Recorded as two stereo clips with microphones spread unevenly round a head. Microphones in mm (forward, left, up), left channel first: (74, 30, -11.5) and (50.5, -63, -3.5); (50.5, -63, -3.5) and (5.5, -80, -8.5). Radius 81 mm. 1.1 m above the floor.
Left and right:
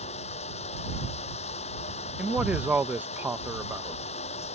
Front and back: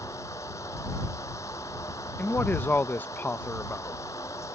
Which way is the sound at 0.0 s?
80° left.